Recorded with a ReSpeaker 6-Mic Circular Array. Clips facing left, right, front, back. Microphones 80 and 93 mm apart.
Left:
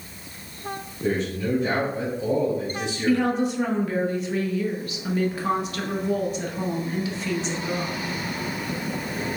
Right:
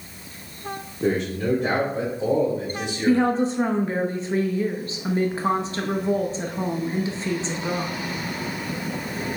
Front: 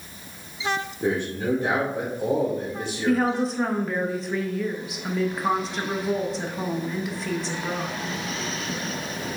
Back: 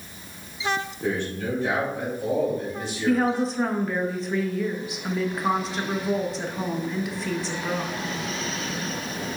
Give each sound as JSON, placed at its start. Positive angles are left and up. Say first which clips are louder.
{"t": 1.0, "sound": "a man speaking", "louder": "right 2 dB, front 4 dB", "azimuth_deg": -65, "distance_m": 1.8}
{"t": 3.1, "sound": "a woman speaking", "louder": "right 2 dB, even", "azimuth_deg": -90, "distance_m": 0.8}